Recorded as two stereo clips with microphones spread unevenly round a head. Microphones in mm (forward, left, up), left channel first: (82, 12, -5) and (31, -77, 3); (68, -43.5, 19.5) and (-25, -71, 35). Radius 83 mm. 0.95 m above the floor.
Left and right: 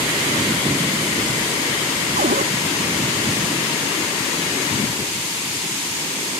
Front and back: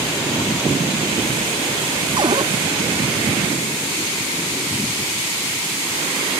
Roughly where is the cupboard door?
Behind right.